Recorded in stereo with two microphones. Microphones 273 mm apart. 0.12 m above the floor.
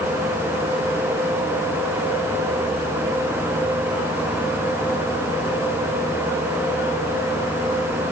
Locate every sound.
Only background noise.